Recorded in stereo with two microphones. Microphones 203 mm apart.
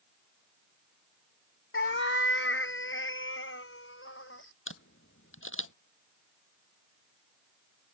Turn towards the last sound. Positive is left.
turn(degrees=85)